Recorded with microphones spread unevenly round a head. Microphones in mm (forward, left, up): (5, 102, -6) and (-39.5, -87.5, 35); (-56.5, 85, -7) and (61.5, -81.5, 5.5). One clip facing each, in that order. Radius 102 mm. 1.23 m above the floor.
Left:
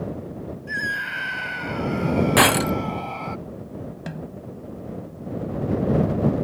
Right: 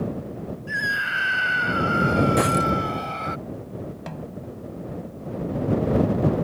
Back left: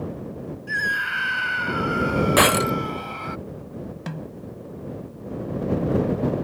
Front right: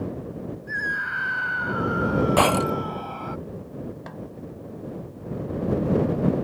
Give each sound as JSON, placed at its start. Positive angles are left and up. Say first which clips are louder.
{"t": 0.7, "sound": "a scream", "louder": "even, back left 1 dB", "azimuth_deg": 170}
{"t": 2.4, "sound": "breaking glass", "louder": "left 2 dB, back left 1 dB", "azimuth_deg": 60}
{"t": 4.1, "sound": "a snare drum", "louder": "left 1 dB, back left 3 dB", "azimuth_deg": 160}